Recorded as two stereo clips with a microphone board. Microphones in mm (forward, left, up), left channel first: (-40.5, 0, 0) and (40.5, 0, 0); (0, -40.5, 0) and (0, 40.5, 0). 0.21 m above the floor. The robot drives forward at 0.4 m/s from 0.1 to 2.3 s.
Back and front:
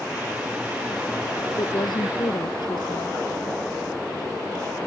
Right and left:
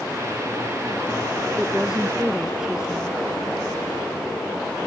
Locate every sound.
1.6 s a woman speaking: 170° left; by 3.2 s 175° left